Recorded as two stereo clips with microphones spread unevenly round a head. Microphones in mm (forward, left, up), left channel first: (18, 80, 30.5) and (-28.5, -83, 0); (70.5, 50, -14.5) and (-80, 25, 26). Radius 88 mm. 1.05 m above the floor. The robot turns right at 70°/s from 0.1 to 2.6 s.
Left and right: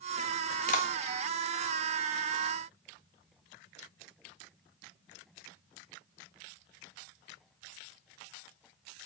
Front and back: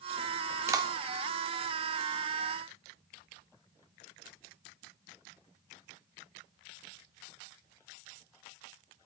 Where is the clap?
115° left, 3 m; by 0.9 s 130° left, 3 m.